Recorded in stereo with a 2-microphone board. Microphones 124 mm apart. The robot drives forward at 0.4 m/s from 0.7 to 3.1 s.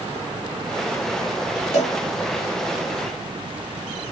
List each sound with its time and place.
1.7 s a cowbell: 65° left (ahead or behind), 2 m